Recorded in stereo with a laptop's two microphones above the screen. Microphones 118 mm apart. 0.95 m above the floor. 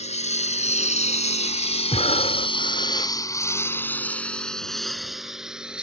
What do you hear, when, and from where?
0.0 s a lawn mower: 75° left (ahead or behind); by 5.8 s 10° right (ahead or behind)
1.9 s breathing: 70° left (ahead or behind)